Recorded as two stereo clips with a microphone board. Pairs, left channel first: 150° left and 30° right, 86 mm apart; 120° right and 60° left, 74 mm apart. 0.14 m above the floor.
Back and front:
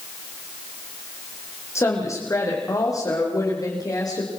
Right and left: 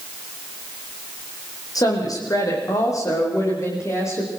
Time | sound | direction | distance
1.8 | a woman speaking | 155° right | 7 m